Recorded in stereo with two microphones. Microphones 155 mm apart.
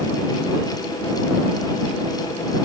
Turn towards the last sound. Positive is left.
No sound to turn to.